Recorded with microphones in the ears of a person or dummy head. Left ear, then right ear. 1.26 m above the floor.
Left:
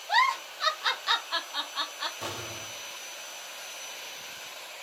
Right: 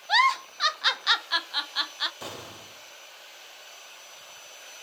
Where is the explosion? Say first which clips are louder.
Left 3 dB; 30° right (ahead or behind), 2 m.